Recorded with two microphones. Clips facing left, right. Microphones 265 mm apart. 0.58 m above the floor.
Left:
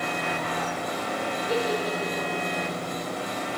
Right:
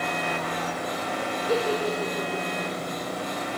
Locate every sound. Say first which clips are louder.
1.5 s a giggle: right 2 dB; 25° right (ahead or behind), 1.6 m